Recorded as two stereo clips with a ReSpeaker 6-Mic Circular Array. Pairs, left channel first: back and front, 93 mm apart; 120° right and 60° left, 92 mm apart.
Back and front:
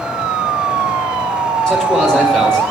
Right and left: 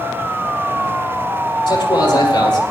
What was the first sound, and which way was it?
A man speaking, 95° right.